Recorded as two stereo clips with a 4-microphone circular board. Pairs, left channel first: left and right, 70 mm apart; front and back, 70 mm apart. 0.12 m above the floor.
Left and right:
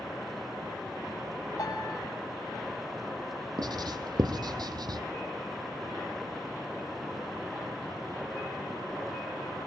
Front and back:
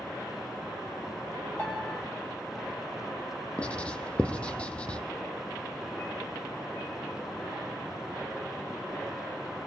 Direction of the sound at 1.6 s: 65° left.